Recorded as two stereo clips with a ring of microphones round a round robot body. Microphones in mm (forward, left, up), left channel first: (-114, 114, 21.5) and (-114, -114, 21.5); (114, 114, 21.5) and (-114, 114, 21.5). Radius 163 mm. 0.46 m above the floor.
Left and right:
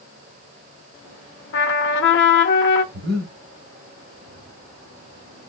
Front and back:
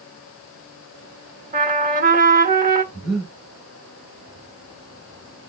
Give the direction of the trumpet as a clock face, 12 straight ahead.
8 o'clock.